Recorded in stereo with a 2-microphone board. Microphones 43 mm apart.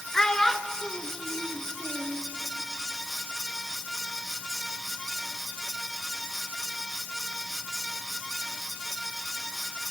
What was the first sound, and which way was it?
A child speaking, 20° left (ahead or behind).